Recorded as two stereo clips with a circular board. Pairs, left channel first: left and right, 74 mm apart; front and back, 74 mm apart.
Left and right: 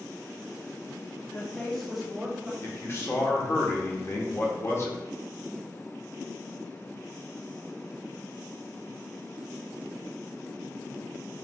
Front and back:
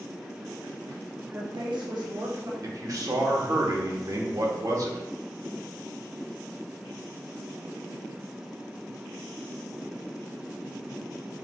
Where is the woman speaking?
130° left, 0.5 m; by 2.5 s 165° right, 1.7 m.